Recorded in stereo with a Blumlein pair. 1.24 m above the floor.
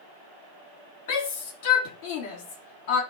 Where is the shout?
50° left, 2.5 m.